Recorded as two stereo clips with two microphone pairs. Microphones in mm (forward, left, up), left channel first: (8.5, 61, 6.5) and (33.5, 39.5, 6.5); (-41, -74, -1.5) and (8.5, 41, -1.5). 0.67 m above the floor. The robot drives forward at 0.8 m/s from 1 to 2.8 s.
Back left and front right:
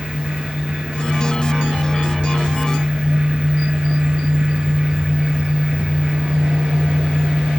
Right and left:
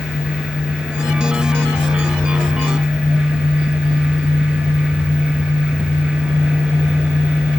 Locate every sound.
Only background noise.